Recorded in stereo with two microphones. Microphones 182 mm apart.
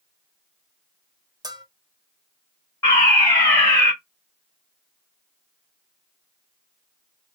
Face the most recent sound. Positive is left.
turn(degrees=15)  # may be behind; listen again after turning